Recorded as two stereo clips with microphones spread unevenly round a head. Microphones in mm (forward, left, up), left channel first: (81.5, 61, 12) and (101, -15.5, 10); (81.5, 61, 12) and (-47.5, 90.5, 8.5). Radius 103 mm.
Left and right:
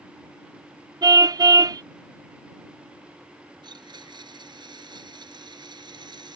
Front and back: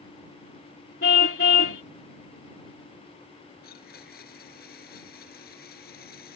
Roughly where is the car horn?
Ahead right.